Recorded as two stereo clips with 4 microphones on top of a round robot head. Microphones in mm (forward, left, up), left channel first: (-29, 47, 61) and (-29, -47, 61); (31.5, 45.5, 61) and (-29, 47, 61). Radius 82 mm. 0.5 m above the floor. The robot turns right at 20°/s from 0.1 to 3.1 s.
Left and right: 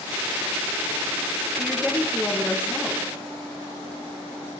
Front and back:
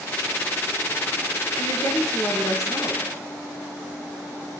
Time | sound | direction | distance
1.6 | a woman speaking | 5° right | 8.5 m